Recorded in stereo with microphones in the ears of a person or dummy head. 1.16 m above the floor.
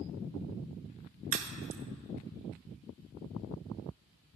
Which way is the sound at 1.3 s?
35° right (ahead or behind).